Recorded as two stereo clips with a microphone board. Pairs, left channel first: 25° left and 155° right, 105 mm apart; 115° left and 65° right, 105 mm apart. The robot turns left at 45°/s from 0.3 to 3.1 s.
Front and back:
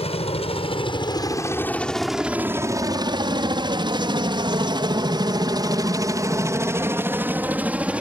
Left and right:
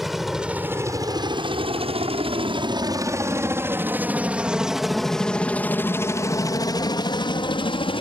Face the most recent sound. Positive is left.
turn(degrees=125)